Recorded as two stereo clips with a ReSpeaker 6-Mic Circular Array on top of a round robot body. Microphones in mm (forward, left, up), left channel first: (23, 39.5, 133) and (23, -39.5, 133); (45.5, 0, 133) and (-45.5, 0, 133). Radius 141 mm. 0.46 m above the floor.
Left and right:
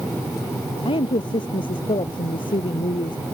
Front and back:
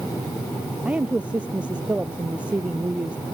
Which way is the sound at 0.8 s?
105° left.